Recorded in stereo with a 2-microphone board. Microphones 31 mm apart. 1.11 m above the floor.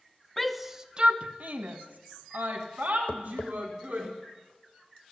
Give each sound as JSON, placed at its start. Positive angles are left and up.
{"t": 0.4, "sound": "a shout", "side_deg": 5, "distance_m": 0.9}
{"t": 3.1, "sound": "tapping", "side_deg": 75, "distance_m": 0.8}